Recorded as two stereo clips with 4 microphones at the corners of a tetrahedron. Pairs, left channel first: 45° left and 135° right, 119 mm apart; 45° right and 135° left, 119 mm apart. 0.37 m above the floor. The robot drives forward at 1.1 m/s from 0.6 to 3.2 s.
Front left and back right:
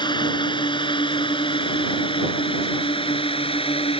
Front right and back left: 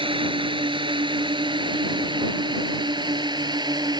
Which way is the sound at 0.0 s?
95° left.